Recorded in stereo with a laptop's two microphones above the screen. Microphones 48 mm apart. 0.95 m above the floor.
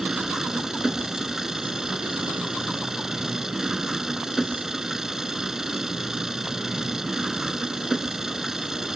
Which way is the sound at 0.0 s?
10° right (ahead or behind).